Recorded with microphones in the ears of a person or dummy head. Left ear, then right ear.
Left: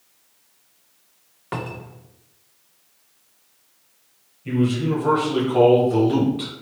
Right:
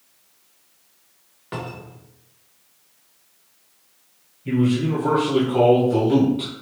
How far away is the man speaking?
About 1.3 m.